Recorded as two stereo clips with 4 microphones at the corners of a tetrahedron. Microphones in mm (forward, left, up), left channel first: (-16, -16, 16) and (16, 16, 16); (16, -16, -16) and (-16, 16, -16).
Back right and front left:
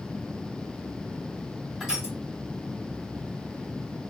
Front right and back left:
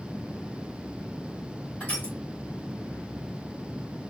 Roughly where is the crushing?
Ahead.